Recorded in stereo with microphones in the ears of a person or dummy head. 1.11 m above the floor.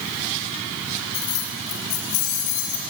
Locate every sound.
1.1 s keys jangling: 55° left (ahead or behind), 1.5 m; by 2.8 s 80° left, 3 m